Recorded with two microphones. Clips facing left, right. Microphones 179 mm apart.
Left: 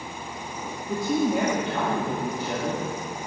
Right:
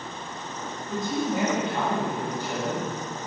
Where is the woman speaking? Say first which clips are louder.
Left 4 dB; 70° left (ahead or behind), 2.5 m.